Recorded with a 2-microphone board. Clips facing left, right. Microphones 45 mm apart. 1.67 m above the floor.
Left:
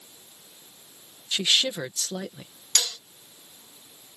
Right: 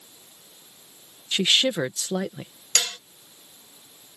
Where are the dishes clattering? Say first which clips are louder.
Right 2 dB; 50° right (ahead or behind).